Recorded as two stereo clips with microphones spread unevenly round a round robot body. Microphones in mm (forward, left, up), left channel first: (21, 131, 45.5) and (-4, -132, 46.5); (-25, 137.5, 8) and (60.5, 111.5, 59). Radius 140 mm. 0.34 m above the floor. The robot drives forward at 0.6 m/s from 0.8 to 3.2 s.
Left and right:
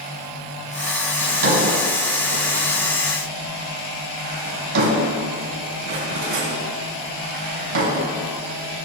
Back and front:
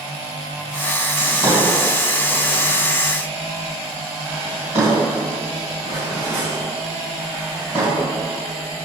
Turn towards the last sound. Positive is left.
turn(degrees=-115)